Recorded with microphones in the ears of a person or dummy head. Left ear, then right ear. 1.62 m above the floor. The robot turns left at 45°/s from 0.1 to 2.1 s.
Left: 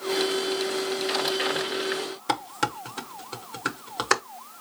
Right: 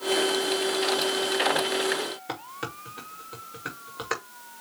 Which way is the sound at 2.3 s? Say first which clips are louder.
Left 8 dB; 30° left (ahead or behind).